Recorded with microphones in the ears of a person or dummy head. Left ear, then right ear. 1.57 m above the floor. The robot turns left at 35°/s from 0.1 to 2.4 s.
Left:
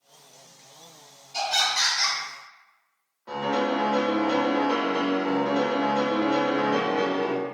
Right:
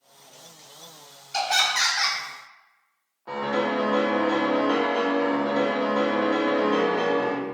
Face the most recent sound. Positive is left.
turn(degrees=-20)  # may be behind; listen again after turning